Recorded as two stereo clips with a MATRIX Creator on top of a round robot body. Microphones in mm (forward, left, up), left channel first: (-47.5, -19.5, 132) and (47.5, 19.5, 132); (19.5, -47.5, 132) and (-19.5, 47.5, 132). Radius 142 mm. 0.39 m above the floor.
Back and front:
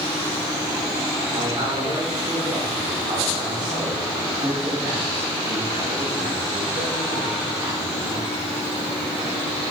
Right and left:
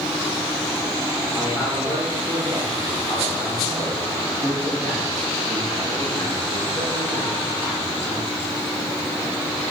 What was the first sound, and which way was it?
A man speaking, 10° right.